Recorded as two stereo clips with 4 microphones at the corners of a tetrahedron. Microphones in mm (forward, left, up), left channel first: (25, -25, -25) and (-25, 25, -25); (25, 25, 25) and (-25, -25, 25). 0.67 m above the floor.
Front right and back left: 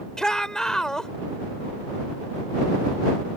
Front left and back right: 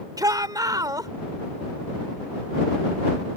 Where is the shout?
125° right.